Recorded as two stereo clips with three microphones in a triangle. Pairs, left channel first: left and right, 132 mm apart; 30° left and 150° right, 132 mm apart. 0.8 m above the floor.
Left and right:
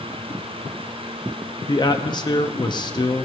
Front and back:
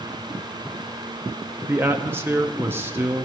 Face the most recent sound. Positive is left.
turn(degrees=140)